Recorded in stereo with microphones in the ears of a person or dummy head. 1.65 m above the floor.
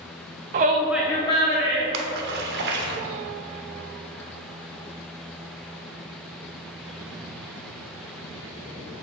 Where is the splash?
65° right (ahead or behind), 1.0 m.